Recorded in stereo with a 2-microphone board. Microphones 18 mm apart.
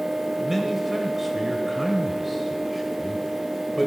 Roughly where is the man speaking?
Centre.